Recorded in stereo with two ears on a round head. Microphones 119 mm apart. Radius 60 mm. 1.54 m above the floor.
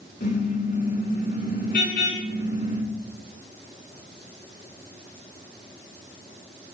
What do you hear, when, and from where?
0.2 s a car horn: 70° left (ahead or behind), 8.5 m